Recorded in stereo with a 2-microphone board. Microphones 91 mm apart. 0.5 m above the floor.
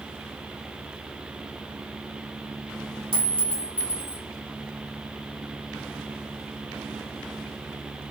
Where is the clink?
75° right (ahead or behind), 1.6 m.